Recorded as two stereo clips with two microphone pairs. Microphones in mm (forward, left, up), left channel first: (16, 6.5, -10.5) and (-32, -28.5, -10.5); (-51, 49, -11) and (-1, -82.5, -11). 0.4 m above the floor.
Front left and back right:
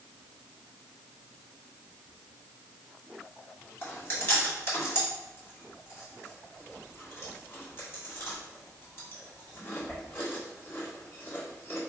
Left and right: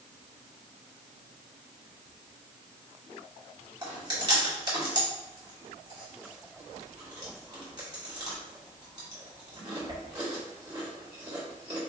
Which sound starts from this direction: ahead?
Chewing, at 3.8 s.